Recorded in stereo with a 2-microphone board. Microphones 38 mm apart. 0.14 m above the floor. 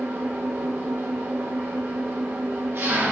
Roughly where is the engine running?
Right.